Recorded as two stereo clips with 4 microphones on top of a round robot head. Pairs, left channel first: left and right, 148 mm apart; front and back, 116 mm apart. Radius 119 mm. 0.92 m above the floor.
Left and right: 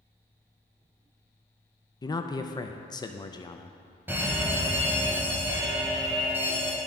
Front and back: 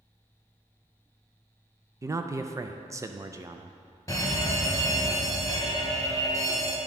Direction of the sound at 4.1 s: 25° right.